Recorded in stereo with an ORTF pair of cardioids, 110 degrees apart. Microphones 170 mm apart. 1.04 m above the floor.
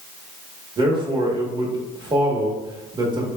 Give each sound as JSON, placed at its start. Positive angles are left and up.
{"t": 0.8, "sound": "a man speaking", "azimuth_deg": -25, "distance_m": 1.4}